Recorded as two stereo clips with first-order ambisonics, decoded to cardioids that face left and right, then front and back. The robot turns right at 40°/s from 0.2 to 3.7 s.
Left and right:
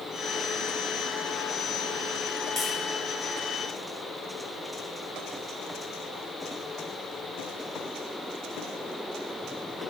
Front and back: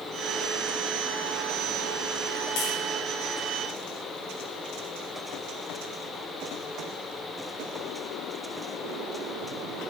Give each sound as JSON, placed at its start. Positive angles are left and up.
{"t": 2.6, "sound": "tapping", "azimuth_deg": 5, "distance_m": 7.5}